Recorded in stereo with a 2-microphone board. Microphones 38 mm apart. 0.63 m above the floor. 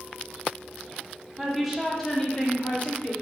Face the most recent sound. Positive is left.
turn(degrees=35)  # may be behind; listen again after turning